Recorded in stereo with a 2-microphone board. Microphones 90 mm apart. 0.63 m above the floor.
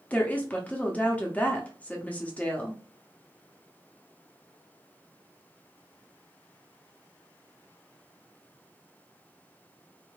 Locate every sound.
0.1 s a woman speaking: 15° left (ahead or behind), 0.7 m